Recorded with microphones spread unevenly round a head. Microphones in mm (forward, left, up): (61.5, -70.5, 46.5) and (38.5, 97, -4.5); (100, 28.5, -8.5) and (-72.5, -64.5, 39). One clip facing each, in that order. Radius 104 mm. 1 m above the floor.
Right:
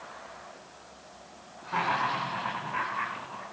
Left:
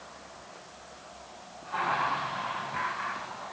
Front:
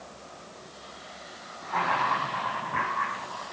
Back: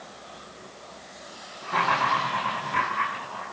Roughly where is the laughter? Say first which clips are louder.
Right 1 dB, back 2 dB; right.